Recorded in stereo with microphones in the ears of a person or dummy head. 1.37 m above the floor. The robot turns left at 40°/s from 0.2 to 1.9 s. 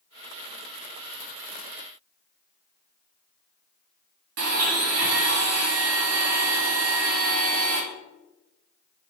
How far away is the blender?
About 1.7 m.